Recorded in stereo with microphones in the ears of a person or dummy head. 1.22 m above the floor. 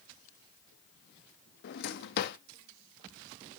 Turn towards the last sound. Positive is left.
turn(degrees=55)  # may be behind; listen again after turning